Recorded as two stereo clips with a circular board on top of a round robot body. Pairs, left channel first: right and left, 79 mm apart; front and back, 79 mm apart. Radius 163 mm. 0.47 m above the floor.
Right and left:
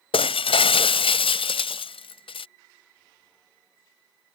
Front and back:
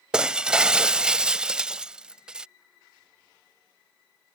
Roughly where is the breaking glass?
Right.